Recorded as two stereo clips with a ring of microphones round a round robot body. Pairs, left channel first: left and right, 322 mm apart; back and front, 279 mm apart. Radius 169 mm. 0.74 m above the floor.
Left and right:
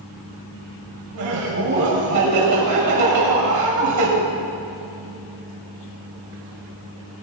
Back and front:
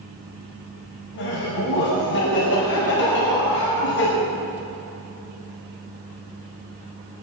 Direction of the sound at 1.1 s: 125° right.